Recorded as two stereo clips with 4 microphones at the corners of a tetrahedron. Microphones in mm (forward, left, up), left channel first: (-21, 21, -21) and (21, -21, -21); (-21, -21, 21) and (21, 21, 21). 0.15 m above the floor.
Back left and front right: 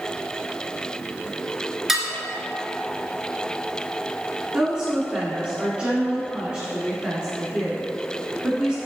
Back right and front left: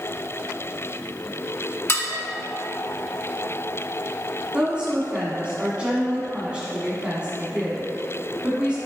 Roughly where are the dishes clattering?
Behind right.